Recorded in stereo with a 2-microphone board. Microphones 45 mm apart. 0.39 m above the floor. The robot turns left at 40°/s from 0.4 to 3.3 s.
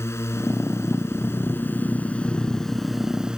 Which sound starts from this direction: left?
A drone, at 0.0 s.